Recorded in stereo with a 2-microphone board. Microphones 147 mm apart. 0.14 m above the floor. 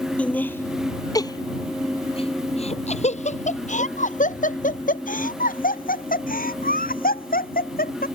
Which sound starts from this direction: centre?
Laughter, at 0.2 s.